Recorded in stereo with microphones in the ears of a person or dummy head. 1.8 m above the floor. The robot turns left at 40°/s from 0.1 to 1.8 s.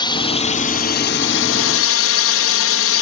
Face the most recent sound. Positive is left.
turn(degrees=70)  # may be behind; listen again after turning